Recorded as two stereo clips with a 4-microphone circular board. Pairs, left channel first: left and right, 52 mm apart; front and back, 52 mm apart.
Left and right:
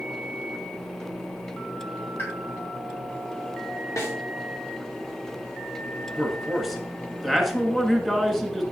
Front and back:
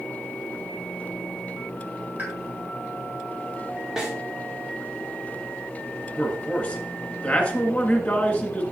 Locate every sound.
2.2 s a pop: 130° left, 3 m
4.0 s a snare drum: 105° left, 3.5 m
6.2 s a man speaking: 5° left, 1.6 m